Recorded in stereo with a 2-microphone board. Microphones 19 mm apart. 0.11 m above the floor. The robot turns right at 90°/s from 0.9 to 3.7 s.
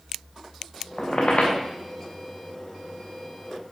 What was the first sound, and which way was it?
A squeak, 20° left.